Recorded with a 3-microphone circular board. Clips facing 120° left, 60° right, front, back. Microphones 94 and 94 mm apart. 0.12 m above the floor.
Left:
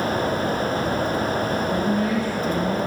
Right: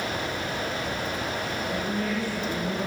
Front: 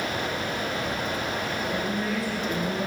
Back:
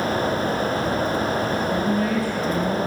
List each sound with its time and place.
1.7 s a woman speaking: 160° left, 2.5 m